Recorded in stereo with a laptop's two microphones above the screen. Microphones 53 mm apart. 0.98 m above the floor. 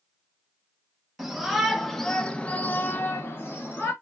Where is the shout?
5° right (ahead or behind), 1.2 m; by 3.9 s 40° left (ahead or behind), 0.9 m.